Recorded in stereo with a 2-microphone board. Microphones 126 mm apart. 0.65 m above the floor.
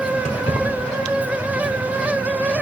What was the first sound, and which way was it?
Keys jangling, 65° left (ahead or behind).